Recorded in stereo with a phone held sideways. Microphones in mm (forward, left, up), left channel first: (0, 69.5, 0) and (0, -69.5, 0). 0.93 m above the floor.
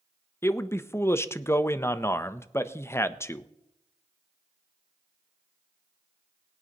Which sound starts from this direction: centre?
A man speaking, at 0.4 s.